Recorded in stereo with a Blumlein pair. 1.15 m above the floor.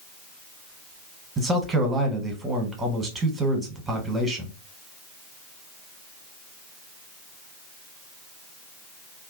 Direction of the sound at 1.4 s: 15° right.